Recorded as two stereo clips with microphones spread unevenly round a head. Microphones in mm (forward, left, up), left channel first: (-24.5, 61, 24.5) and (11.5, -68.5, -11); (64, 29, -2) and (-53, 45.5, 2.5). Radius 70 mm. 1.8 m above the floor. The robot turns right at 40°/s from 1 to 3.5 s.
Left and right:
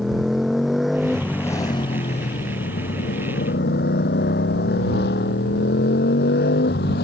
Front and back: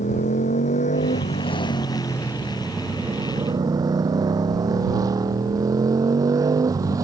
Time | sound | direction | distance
0.0 | a motorcycle | 15° left | ?